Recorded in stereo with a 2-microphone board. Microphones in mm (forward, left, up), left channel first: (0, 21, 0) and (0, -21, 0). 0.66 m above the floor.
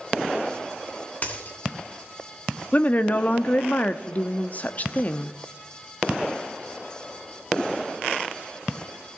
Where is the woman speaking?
35° left (ahead or behind), 0.8 m.